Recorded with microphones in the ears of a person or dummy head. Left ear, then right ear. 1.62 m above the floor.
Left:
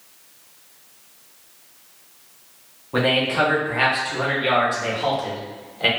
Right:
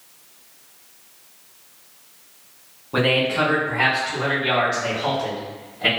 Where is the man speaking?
Centre (ahead or behind), 1.0 m; by 5.9 s 70° left (ahead or behind), 1.5 m.